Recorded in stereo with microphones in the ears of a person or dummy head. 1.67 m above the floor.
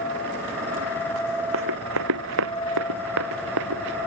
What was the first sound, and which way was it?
Running footsteps, 80° right.